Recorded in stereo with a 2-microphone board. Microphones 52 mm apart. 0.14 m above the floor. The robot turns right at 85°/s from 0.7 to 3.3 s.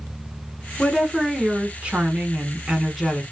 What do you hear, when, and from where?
0.8 s a woman speaking: 10° left (ahead or behind), 1.2 m; by 3.2 s 5° left (ahead or behind), 1.2 m